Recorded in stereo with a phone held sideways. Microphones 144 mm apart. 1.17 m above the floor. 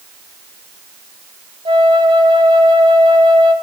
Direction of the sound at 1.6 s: 35° right (ahead or behind).